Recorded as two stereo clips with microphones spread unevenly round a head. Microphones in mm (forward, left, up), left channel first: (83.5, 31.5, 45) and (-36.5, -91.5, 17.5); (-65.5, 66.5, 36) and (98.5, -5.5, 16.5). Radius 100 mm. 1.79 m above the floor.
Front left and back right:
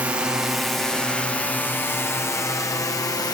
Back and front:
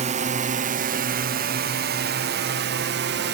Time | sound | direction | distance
0.0 | a drone | 60° right | ?